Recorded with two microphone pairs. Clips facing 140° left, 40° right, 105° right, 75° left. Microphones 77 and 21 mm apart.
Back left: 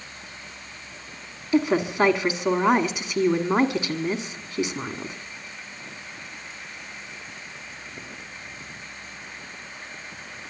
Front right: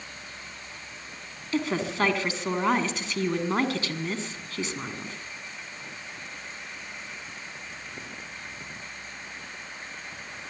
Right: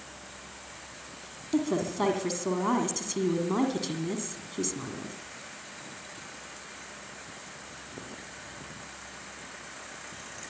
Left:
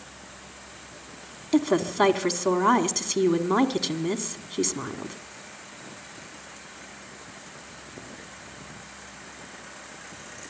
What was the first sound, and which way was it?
A woman speaking, 75° left.